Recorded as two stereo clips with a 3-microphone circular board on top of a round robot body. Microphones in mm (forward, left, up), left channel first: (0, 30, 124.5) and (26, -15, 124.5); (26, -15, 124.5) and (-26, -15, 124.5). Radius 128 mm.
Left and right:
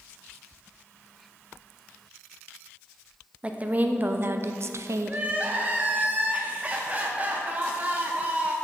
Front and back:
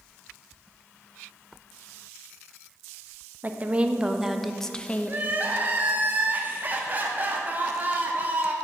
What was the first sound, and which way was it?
A woman speaking, 125° right.